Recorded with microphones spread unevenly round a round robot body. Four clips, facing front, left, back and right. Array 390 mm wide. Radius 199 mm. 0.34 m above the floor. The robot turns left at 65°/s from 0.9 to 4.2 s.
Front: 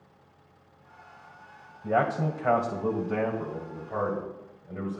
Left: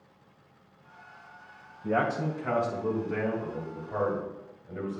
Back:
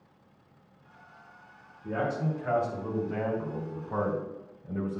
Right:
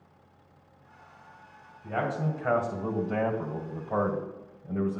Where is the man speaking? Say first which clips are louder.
Left 3 dB, front 5 dB; 25° left, 2 m; by 5.0 s 130° right, 2 m.